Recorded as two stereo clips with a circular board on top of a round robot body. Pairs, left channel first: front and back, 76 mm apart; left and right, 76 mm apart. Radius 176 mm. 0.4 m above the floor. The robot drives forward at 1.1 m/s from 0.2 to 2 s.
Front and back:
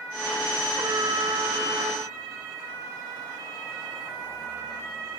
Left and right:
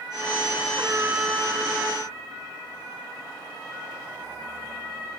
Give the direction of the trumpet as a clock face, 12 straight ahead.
5 o'clock.